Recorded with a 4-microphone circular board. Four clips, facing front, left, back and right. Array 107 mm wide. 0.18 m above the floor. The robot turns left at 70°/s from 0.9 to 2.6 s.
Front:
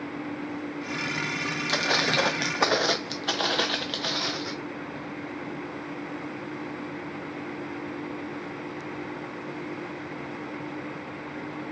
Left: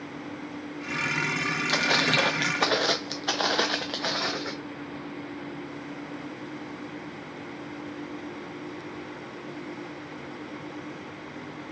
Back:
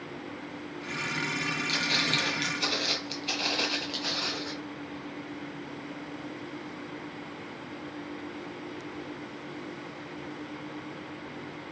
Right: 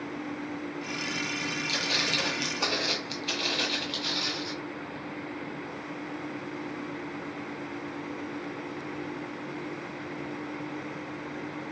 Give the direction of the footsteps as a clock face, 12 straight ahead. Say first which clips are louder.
Left 10 dB, front 8 dB; 11 o'clock.